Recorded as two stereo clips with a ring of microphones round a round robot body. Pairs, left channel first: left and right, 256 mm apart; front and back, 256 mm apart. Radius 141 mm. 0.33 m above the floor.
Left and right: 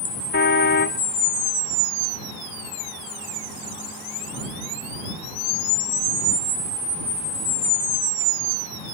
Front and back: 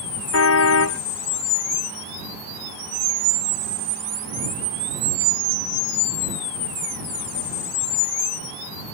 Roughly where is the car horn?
Ahead left.